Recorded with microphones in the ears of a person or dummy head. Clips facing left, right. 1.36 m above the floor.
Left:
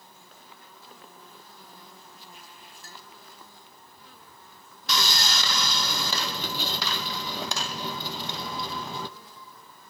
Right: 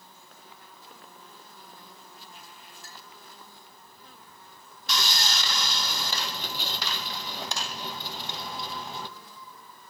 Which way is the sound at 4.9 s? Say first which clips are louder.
Left 2 dB; 70° left (ahead or behind).